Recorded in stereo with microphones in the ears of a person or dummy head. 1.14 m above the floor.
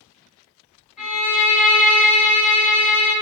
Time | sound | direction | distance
1.0 | a violin | 5° right (ahead or behind) | 1.9 m